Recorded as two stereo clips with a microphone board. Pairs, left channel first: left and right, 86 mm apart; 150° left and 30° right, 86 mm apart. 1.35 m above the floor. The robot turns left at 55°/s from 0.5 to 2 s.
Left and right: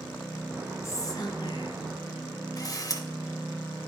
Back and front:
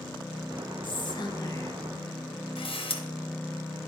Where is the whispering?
140° left, 0.8 m; by 1.8 s 90° left, 0.8 m.